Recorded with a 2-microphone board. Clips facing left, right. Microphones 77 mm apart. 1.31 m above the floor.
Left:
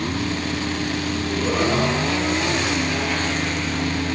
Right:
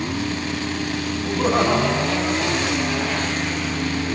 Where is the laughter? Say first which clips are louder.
Right 4 dB; 75° right (ahead or behind), 8 m; by 3.3 s 70° right (ahead or behind), 9 m.